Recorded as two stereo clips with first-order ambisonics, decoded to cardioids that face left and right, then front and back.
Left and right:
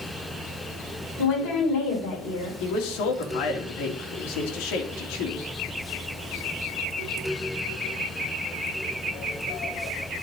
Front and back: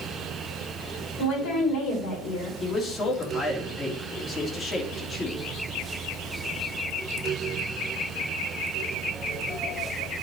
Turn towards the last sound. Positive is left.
turn(degrees=70)